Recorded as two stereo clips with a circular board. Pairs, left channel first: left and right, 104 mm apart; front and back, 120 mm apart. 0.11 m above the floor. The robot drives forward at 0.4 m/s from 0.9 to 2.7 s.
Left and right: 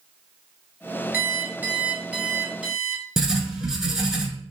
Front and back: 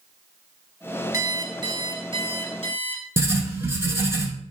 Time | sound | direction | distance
1.1 | an alarm clock | 145° right | 0.7 m
3.2 | writing | 165° right | 0.8 m